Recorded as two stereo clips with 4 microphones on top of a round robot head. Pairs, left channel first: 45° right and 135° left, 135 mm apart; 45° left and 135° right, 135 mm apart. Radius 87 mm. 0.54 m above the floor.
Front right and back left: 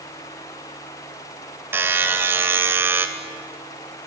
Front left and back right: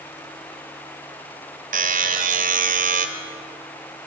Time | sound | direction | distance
1.7 | a buzzer | 150° right | 2 m